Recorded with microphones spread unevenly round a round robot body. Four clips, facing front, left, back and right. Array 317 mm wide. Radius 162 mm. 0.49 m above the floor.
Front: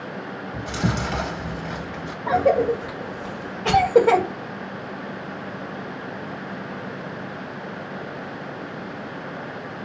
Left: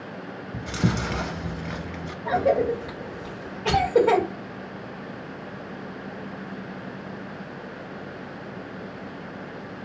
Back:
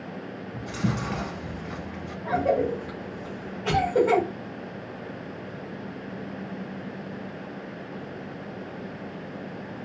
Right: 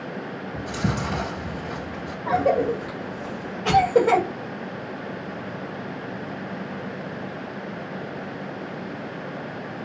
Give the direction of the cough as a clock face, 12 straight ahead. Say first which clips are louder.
Right 1 dB, front 5 dB; 12 o'clock.